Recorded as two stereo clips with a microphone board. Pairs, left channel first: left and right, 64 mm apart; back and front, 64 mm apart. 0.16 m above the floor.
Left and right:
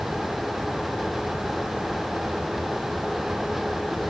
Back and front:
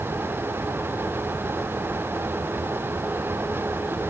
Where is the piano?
No piano in this recording.